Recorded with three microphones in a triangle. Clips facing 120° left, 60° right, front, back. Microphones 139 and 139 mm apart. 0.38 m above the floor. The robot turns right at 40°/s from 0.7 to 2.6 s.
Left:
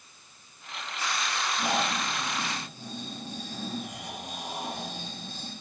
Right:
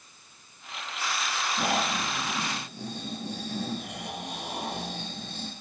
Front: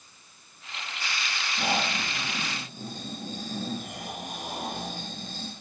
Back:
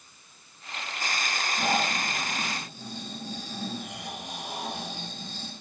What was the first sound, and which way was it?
Snoring, 85° right.